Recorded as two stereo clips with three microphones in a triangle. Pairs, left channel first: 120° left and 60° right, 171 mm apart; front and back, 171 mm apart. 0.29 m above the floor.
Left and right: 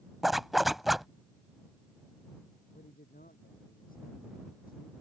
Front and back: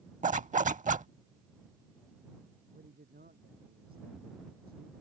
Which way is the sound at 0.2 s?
150° right.